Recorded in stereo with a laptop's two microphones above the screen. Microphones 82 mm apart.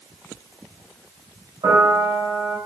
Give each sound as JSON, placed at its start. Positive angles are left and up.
{"t": 1.6, "sound": "a piano", "side_deg": -70, "distance_m": 3.5}